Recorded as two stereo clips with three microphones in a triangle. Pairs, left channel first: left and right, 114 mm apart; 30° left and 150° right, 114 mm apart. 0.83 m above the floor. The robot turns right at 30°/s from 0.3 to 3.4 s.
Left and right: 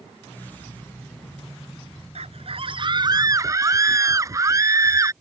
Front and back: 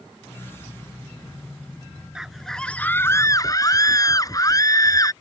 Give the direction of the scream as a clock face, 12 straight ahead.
2 o'clock.